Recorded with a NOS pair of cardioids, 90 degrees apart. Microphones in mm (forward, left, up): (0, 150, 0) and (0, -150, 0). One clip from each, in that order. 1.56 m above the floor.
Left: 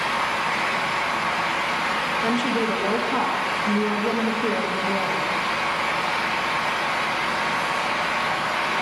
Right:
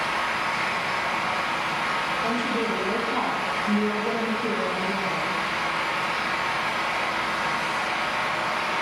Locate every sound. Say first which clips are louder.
0.0 s a fan: left 2 dB; 10° left, 1.2 m
2.2 s a woman speaking: left 2 dB; 30° left, 1.8 m